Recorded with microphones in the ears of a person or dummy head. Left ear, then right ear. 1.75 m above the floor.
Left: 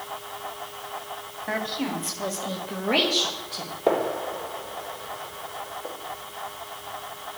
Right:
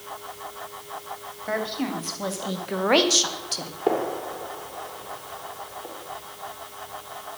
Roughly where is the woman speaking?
Centre.